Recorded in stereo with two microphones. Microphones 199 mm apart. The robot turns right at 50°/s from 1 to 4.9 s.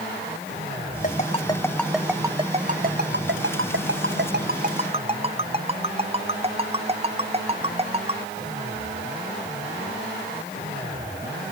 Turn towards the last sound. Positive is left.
turn(degrees=-30)  # may be behind; listen again after turning